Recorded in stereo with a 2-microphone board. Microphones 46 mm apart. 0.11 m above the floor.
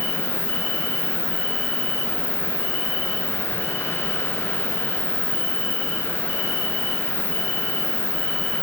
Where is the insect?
25° right (ahead or behind), 1.3 m.